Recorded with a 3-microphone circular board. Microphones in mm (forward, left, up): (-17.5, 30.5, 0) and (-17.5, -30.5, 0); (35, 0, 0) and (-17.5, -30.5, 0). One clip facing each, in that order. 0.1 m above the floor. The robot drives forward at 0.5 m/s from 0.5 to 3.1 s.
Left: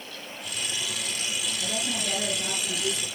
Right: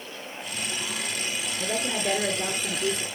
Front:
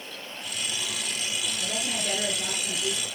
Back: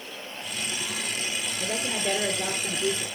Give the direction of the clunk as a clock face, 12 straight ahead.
No clunk in this recording.